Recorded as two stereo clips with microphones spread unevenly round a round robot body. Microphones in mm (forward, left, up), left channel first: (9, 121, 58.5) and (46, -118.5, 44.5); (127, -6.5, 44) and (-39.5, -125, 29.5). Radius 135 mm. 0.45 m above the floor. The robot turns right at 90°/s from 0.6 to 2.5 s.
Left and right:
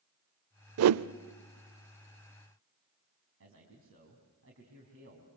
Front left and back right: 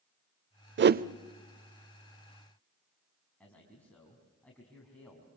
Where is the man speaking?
50° right, 5 m.